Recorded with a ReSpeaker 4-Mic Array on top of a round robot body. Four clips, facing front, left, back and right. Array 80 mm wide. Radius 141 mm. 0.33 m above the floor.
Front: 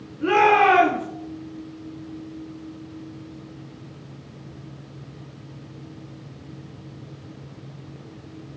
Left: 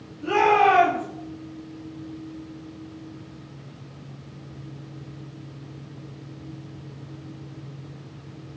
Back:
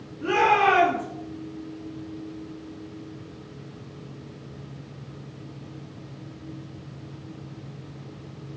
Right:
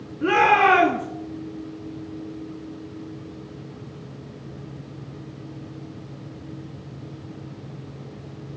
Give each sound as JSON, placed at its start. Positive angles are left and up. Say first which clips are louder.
{"t": 0.2, "sound": "a shout", "louder": "right 1 dB, front 4 dB", "azimuth_deg": -70, "distance_m": 6.5}